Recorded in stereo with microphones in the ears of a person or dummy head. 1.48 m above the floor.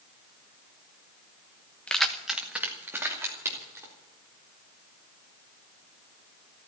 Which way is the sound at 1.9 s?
5° left (ahead or behind).